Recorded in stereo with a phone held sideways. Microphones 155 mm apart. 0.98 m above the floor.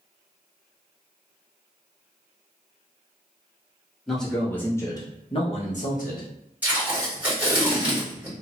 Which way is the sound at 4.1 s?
Centre (ahead or behind).